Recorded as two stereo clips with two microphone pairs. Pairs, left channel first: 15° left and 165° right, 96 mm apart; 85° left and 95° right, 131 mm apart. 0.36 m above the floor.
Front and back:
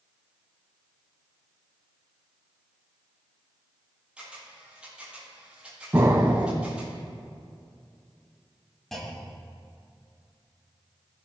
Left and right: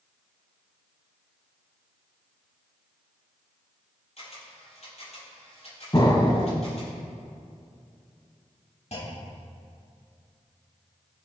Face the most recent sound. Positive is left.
turn(degrees=100)